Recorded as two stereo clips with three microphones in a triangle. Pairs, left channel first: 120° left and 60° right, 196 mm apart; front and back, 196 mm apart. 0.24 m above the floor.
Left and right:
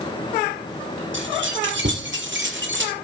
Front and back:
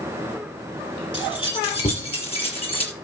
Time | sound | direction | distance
1.1 | keys jangling | 60° right | 5 m